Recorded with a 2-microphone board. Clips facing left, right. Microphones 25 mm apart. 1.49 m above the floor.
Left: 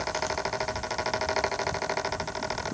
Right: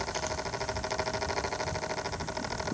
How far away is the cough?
No cough in this recording.